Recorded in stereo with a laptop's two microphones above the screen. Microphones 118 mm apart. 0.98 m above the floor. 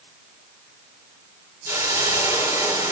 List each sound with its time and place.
1.6 s a hiss: 20° right (ahead or behind), 3.5 m